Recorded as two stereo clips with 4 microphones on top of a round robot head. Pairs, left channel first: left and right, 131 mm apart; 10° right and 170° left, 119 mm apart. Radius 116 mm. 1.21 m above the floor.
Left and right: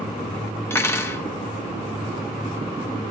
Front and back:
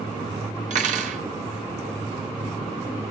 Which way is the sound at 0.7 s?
160° left.